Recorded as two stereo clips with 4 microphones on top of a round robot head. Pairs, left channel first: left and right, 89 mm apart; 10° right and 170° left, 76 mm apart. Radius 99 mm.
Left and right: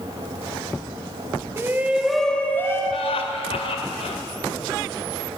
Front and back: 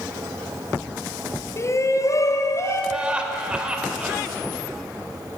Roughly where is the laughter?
Left.